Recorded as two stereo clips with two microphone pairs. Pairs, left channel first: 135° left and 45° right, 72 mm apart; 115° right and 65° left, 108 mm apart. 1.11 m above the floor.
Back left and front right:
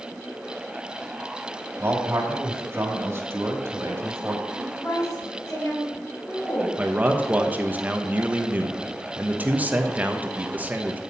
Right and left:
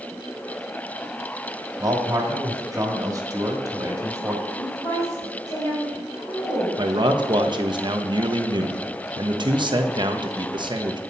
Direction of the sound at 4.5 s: 170° right.